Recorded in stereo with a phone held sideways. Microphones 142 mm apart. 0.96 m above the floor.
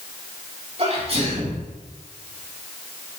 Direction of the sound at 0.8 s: 45° right (ahead or behind).